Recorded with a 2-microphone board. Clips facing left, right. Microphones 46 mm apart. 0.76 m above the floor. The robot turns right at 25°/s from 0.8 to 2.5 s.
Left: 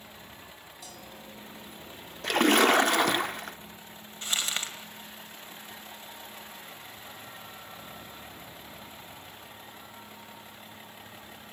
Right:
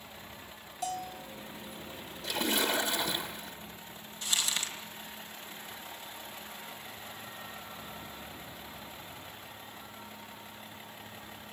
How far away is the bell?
About 1.4 m.